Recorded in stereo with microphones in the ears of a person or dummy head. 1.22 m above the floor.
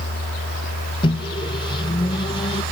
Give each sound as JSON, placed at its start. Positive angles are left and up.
{"t": 1.0, "sound": "a microwave", "side_deg": 25, "distance_m": 0.7}